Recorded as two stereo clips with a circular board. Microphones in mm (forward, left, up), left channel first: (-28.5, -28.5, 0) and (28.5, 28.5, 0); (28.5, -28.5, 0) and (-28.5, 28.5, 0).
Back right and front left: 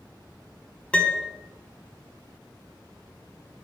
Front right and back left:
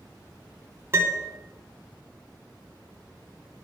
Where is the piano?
160° left, 1.0 m.